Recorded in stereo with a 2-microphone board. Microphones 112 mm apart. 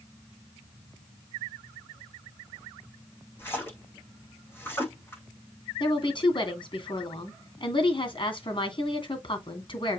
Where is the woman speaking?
50° left (ahead or behind), 2.5 m.